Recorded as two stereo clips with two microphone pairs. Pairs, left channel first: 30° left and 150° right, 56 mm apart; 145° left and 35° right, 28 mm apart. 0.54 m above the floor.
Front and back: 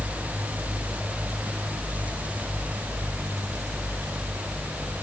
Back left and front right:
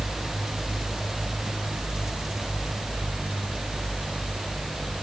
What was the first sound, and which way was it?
Only background noise.